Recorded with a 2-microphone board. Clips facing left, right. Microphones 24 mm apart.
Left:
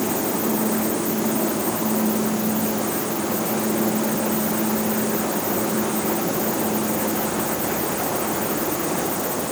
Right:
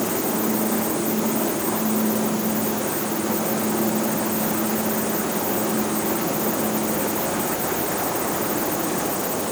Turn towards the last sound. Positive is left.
No sound to turn to.